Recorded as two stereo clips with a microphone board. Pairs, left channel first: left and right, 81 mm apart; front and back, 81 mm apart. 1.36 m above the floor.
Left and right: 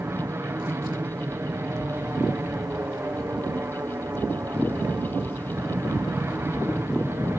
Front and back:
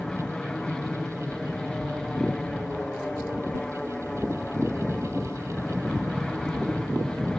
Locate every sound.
0.0 s an aircraft: 75° right